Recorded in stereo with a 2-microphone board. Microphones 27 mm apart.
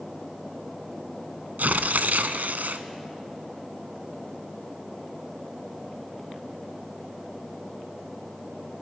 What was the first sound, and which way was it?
Tearing paper, 80° right.